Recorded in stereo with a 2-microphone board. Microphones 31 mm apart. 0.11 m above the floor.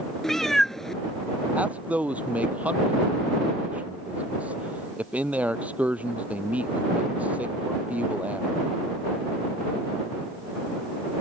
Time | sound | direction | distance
0.2 | a cat meowing | 15° left (ahead or behind) | ?
1.6 | a man speaking | 55° right (ahead or behind) | ?